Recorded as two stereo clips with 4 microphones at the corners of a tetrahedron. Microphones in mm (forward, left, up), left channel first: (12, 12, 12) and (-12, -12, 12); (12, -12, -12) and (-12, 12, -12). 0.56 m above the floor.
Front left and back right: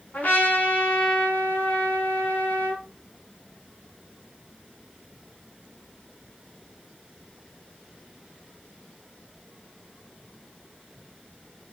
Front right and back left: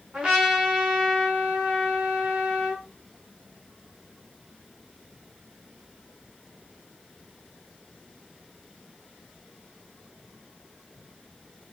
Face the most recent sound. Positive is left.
turn(degrees=80)